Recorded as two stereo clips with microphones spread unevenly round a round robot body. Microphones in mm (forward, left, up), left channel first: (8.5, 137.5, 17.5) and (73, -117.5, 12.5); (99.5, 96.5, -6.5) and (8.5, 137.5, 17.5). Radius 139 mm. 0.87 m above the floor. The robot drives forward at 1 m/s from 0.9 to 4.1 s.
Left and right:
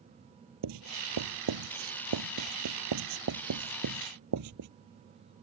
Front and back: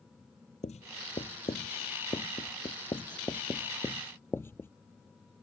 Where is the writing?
80° right; by 4.7 s 110° right.